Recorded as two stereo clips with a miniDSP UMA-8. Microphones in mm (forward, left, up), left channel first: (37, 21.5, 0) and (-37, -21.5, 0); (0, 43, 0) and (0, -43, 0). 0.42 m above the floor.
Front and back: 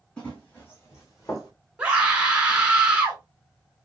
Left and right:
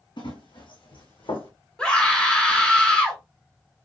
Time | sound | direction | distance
0.2 | running footsteps | 105° left | 1.4 m
1.8 | a scream | 150° left | 1.1 m